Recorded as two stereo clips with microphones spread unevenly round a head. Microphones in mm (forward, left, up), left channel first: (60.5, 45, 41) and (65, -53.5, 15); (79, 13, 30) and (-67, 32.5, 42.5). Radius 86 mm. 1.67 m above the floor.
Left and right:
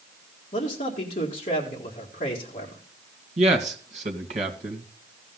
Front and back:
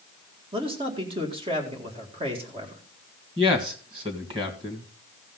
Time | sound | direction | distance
0.5 | a man speaking | 120° left | 2 m
3.4 | a man speaking | 125° right | 1.9 m